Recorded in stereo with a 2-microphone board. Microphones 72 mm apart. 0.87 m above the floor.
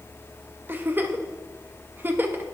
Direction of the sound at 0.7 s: 25° right (ahead or behind).